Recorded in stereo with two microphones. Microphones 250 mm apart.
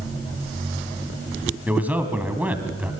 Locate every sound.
1.7 s a man speaking: 5° right (ahead or behind), 2.5 m